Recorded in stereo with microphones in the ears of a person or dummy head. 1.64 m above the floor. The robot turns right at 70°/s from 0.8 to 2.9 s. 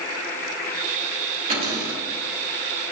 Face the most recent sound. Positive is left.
turn(degrees=-30)